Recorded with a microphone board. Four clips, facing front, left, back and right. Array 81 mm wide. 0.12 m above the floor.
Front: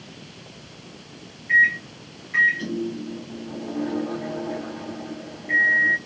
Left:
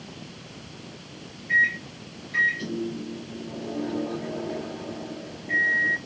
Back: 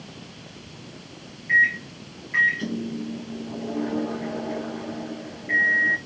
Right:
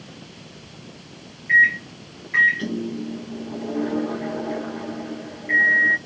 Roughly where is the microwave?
Right.